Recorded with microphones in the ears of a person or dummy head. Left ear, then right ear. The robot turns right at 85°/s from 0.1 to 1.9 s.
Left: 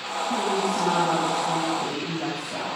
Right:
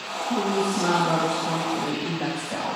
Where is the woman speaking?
170° right, 7.5 m; by 2.8 s 35° right, 7.5 m.